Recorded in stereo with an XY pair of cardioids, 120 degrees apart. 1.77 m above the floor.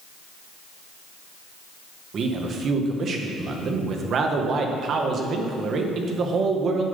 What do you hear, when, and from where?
2.1 s a man speaking: 45° right, 1.7 m